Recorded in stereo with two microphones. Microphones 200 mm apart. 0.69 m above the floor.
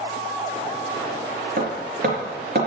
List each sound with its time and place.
1.6 s hammering: 50° right (ahead or behind), 4 m